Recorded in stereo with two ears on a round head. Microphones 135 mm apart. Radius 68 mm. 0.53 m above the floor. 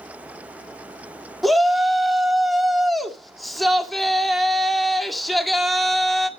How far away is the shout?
About 1.3 m.